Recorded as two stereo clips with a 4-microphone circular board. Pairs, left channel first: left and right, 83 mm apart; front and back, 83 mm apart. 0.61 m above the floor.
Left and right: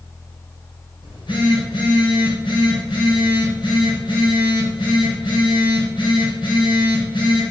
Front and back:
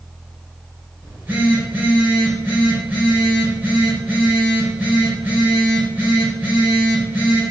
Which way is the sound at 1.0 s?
115° left.